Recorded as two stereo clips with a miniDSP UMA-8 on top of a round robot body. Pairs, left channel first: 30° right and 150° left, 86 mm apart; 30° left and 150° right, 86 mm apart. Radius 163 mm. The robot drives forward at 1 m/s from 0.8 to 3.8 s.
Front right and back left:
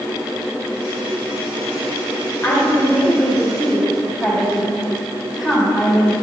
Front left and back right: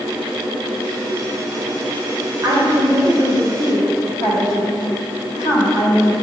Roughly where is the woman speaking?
Right.